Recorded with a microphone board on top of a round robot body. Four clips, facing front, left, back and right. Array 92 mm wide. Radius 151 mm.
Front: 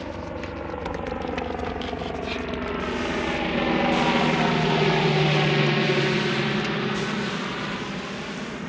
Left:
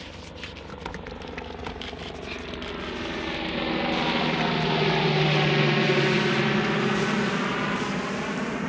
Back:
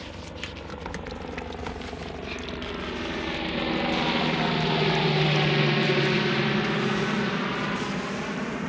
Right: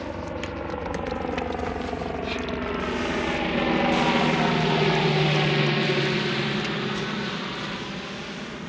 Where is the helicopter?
55° right; by 8.7 s 115° left.